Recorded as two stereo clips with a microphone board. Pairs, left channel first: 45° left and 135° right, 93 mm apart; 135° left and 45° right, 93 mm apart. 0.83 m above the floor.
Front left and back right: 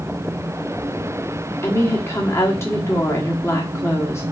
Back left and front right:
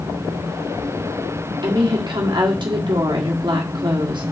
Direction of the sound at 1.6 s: 15° right.